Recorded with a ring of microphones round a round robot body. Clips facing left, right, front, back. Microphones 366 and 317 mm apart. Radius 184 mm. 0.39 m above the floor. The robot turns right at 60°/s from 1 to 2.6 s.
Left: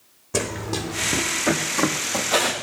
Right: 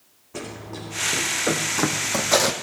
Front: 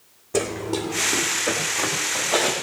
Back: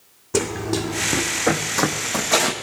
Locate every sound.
0.3 s running footsteps: 115° left, 1.8 m; by 2.5 s 110° right, 1.4 m